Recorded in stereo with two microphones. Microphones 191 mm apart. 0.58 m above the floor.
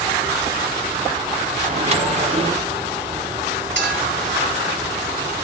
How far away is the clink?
About 8 m.